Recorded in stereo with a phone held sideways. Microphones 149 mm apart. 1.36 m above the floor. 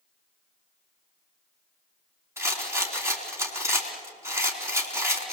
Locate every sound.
2.4 s a rattle: 20° right (ahead or behind), 4 m